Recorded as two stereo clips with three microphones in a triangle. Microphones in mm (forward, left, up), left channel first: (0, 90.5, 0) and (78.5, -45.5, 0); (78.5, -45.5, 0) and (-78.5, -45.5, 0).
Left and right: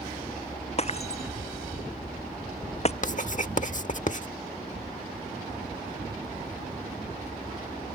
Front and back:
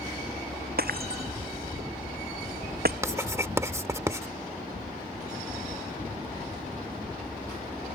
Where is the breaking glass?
165° left.